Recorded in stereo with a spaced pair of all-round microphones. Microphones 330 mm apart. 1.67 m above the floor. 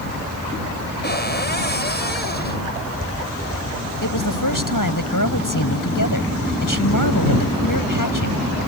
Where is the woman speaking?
75° left (ahead or behind).